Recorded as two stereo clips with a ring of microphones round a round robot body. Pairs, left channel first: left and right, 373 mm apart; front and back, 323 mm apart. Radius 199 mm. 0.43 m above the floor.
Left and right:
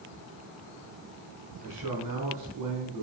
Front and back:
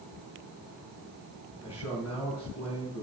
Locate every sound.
1.6 s a man speaking: 50° right, 4.5 m